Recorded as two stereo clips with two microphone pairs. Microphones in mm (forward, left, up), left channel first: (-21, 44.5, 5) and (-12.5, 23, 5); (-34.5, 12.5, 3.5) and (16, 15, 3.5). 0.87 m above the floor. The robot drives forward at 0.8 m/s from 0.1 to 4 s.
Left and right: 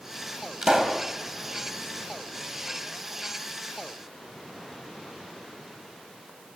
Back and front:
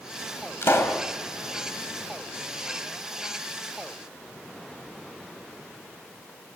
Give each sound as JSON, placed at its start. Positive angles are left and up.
{"t": 0.6, "sound": "a pop", "azimuth_deg": -140, "distance_m": 3.0}